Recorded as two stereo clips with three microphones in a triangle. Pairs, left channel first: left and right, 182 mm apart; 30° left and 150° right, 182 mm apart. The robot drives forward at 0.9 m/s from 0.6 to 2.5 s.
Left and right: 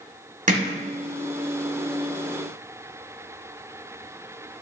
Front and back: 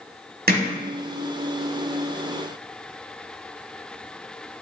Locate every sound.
0.5 s hammering: 130° right, 1.2 m; by 0.8 s 135° right, 1.3 m